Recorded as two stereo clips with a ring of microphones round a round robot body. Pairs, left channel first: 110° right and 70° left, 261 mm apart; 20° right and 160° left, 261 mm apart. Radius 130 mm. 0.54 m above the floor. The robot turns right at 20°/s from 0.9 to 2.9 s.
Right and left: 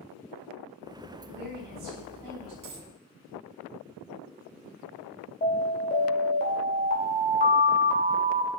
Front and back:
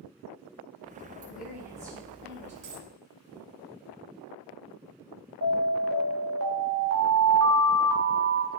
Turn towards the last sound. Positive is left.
turn(degrees=-170)